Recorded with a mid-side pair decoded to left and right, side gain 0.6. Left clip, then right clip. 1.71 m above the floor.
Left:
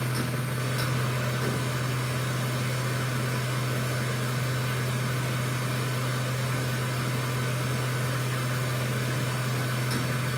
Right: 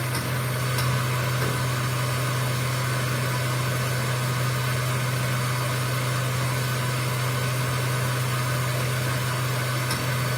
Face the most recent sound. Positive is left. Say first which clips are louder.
# right 3 dB
turn(degrees=-50)